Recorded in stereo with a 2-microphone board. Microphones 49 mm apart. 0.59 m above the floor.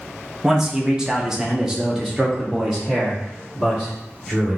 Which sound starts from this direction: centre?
A man speaking, at 0.4 s.